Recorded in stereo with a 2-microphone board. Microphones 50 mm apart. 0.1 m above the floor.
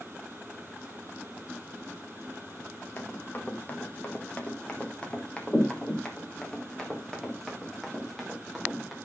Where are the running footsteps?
40° left (ahead or behind), 2.5 m; by 9.0 s 5° left (ahead or behind), 4.5 m.